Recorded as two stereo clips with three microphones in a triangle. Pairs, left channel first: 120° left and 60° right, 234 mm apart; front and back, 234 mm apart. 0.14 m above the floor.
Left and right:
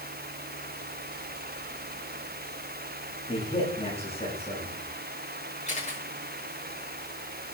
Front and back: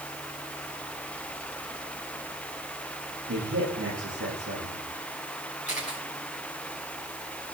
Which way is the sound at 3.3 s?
175° right.